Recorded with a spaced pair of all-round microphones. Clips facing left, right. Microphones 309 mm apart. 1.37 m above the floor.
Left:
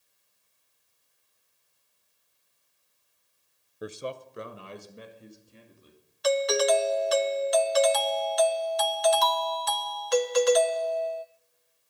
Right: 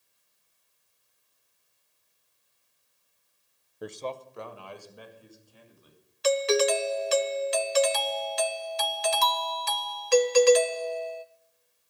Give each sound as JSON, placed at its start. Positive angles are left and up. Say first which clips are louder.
{"t": 3.8, "sound": "a man speaking", "louder": "even", "side_deg": 5, "distance_m": 0.6}
{"t": 6.2, "sound": "a doorbell", "louder": "right 1 dB", "side_deg": -35, "distance_m": 0.6}